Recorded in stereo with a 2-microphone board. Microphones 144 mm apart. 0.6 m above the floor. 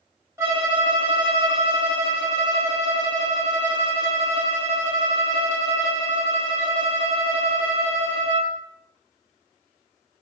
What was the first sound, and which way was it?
A violin, 20° right (ahead or behind).